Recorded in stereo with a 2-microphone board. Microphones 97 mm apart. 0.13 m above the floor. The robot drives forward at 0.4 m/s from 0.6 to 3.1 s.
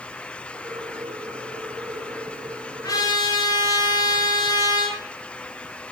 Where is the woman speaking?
I don't hear a woman speaking.